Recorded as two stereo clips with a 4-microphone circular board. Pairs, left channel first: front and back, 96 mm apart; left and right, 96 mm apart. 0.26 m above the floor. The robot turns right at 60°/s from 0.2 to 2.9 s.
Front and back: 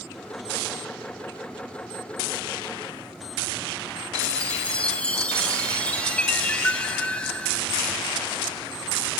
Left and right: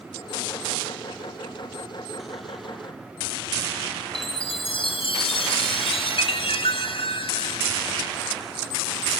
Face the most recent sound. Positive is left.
turn(degrees=80)